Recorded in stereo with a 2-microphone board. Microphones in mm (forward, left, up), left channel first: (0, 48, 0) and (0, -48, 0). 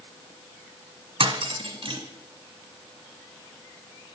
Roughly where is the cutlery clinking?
Right.